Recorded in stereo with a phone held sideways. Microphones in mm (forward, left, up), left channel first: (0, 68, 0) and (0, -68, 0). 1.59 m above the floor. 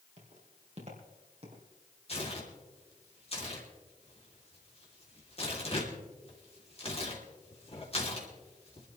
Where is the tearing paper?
45° left (ahead or behind), 3 m.